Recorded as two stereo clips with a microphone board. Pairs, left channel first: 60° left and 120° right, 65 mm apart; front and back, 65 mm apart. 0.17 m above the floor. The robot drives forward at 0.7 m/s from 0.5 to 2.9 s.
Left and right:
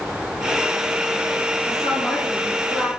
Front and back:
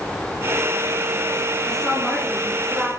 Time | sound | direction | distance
1.6 | a woman speaking | 80° left | 3 m